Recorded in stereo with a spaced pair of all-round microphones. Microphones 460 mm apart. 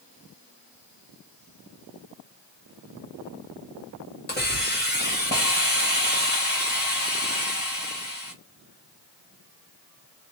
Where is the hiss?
20° left (ahead or behind), 1.3 m.